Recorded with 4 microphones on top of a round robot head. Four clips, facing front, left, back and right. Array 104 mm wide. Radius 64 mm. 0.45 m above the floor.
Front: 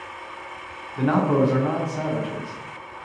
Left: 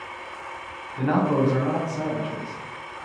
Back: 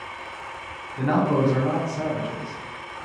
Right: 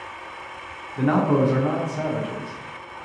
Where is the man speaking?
45° right, 0.7 m.